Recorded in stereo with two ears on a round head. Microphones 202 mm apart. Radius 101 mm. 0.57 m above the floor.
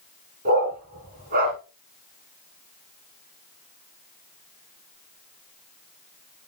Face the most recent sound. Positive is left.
turn(degrees=-40)  # may be behind; listen again after turning